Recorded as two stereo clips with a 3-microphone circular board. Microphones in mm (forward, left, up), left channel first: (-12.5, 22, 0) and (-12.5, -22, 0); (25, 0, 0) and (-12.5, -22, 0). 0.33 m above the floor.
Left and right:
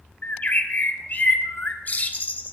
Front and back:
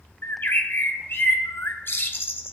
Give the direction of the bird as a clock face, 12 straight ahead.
10 o'clock.